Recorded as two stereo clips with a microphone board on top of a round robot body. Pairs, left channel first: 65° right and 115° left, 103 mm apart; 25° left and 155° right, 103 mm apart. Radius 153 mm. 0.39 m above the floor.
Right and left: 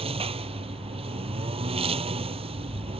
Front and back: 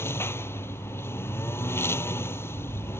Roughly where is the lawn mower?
Left.